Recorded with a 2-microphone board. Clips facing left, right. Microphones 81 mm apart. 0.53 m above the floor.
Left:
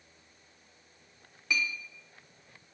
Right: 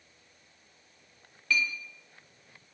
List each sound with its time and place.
1.5 s a clink: 20° left (ahead or behind), 0.8 m